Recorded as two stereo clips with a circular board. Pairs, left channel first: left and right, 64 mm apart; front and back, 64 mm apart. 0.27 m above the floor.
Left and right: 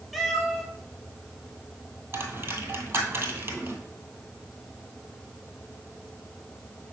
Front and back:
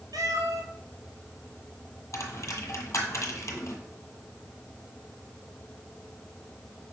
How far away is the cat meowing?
About 1.2 m.